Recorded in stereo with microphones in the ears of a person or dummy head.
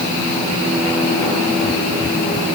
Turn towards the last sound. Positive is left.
No sound to turn to.